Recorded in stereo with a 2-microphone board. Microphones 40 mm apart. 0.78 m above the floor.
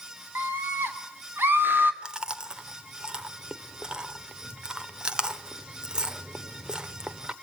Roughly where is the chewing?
Right.